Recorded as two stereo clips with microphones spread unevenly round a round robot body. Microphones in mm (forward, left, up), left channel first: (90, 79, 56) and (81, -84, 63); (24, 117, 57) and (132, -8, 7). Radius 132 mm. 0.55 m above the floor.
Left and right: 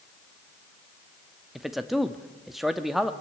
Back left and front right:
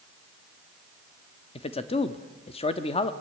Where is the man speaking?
175° left, 0.9 m.